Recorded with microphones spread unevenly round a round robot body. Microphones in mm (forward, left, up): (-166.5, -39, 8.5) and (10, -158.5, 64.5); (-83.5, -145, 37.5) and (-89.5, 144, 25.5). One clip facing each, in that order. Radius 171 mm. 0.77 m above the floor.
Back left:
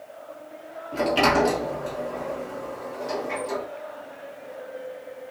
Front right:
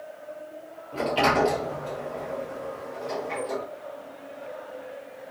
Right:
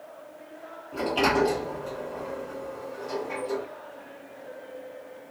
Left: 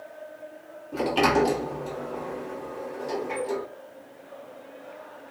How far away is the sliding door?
About 1.6 m.